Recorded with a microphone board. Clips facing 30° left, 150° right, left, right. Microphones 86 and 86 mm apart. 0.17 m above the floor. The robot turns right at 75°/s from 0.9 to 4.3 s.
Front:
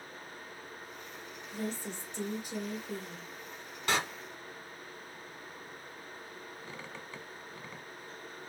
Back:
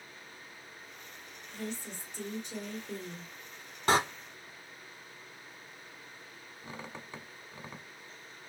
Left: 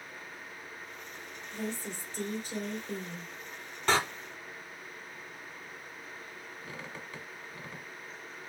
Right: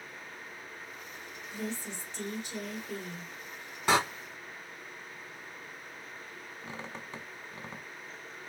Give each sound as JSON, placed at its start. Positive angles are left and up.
{"t": 1.5, "sound": "a woman speaking", "azimuth_deg": 45, "distance_m": 2.5}
{"t": 3.9, "sound": "a door slam", "azimuth_deg": -165, "distance_m": 0.9}
{"t": 6.6, "sound": "a squeak", "azimuth_deg": -100, "distance_m": 1.0}